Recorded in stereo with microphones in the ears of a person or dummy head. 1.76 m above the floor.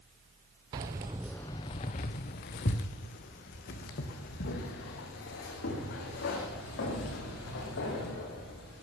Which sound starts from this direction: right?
Keys jangling, at 0.7 s.